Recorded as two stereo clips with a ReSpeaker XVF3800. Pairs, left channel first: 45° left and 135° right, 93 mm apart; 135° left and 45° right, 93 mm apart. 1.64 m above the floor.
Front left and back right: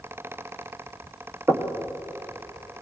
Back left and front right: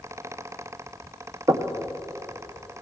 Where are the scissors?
No scissors in this recording.